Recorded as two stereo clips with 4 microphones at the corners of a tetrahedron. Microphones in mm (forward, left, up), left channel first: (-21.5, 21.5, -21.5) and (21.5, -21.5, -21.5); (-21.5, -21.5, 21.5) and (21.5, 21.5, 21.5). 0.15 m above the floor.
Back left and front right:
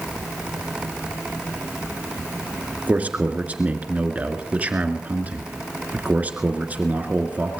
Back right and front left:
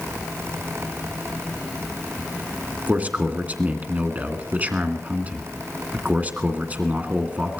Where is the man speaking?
Straight ahead, 1.9 m.